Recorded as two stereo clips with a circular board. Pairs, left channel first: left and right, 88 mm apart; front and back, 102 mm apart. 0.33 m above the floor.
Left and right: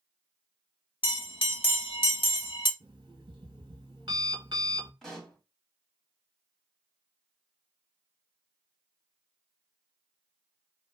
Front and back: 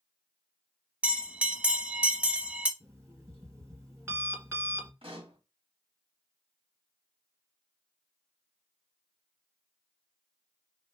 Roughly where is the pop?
Behind.